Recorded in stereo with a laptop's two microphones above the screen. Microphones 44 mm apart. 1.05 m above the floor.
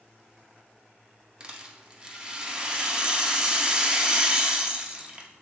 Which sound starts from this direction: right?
A rattle, at 1.4 s.